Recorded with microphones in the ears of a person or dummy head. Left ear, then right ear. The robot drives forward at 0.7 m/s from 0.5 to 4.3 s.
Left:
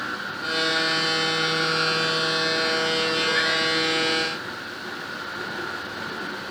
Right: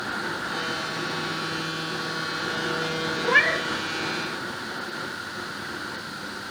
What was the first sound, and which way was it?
A cat meowing, 50° right (ahead or behind).